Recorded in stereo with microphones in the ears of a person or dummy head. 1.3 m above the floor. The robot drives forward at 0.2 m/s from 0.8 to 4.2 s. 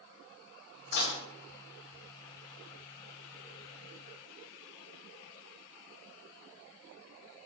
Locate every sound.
0.9 s dishes clattering: 65° left (ahead or behind), 0.8 m